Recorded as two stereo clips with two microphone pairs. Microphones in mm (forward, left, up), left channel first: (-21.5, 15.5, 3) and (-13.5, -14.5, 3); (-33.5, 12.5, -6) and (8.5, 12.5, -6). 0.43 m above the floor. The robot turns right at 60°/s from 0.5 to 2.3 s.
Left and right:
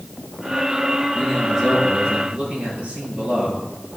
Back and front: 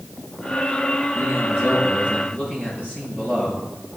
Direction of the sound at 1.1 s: 165° left.